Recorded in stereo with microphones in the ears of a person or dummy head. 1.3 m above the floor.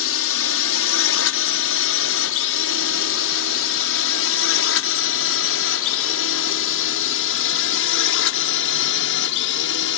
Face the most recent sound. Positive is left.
turn(degrees=65)  # may be behind; listen again after turning